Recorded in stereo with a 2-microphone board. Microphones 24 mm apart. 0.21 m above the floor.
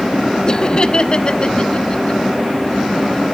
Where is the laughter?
30° left (ahead or behind), 1.2 m; by 2.2 s 40° left (ahead or behind), 2.0 m.